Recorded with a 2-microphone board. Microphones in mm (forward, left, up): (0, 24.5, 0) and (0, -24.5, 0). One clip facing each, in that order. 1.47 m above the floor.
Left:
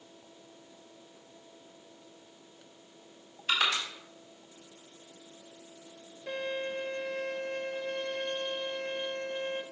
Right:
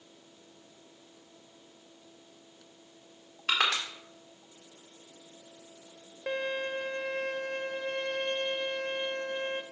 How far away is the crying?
No crying in this recording.